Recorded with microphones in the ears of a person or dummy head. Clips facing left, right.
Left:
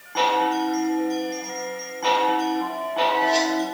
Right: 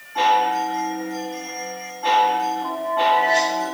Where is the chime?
85° left, 1.3 m.